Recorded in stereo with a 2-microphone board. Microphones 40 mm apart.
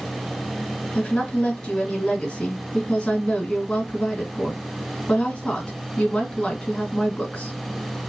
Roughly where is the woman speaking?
Left.